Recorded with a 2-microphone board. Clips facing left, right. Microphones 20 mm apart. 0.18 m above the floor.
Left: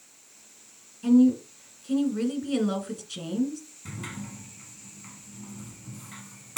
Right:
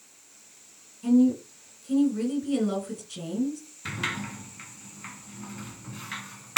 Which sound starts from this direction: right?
A sliding door, at 3.9 s.